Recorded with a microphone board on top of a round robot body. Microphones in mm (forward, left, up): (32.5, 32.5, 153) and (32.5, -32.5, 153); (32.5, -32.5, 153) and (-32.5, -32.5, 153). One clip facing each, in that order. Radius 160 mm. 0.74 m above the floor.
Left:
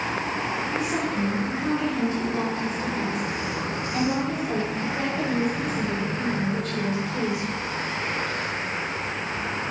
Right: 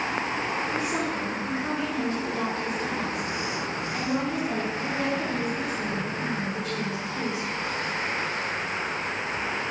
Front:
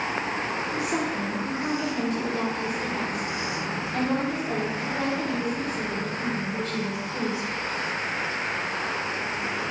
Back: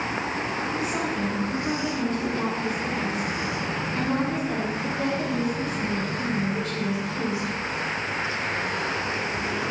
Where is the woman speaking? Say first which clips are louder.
Left 2 dB, front 1 dB; 5° left, 2.5 m; by 7.5 s 65° left, 4 m.